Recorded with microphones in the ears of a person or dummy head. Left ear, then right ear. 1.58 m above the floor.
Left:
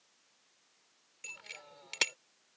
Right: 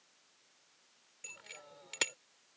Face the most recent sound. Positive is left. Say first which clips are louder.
# left 4 dB
turn(degrees=25)  # may be behind; listen again after turning